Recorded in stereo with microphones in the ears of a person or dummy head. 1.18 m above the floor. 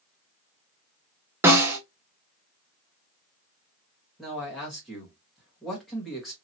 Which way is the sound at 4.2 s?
5° right (ahead or behind).